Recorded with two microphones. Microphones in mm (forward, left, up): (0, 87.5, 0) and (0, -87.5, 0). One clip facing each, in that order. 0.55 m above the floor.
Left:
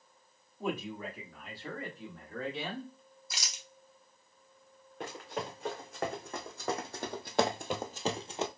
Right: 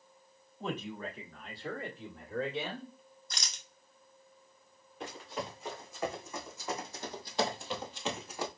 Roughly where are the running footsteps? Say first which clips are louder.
Left 1 dB; left.